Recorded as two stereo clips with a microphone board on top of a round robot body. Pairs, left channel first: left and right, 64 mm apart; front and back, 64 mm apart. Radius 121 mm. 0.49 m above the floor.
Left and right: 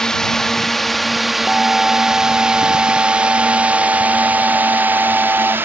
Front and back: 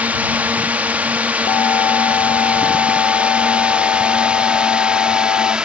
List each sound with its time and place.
0.0 s a drone: 160° left; by 5.7 s 115° right
1.5 s an alarm: 10° right